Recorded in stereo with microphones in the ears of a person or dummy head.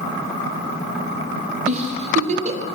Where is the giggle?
45° right (ahead or behind), 0.7 m.